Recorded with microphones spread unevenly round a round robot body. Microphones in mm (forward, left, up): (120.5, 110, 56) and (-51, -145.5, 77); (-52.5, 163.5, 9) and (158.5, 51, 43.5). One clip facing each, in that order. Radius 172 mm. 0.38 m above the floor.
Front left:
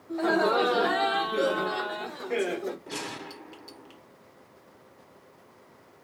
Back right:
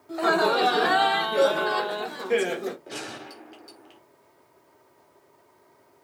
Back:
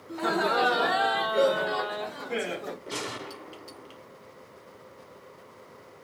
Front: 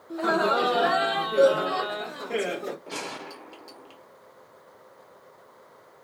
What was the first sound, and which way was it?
Laughter, 160° right.